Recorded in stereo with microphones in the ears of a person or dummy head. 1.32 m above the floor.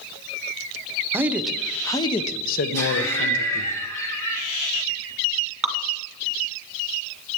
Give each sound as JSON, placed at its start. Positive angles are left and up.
{"t": 1.1, "sound": "a man speaking", "side_deg": -10, "distance_m": 0.9}
{"t": 2.7, "sound": "laughter", "side_deg": 10, "distance_m": 3.0}
{"t": 5.6, "sound": "dripping", "side_deg": 0, "distance_m": 1.7}